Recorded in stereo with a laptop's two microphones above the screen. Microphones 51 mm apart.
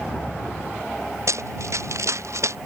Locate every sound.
1.3 s running footsteps: 70° right (ahead or behind); by 2.6 s 65° right (ahead or behind)